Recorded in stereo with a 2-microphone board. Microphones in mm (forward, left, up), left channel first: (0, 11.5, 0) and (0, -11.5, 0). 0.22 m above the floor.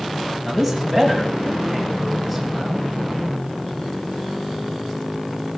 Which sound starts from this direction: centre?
A man speaking, at 0.5 s.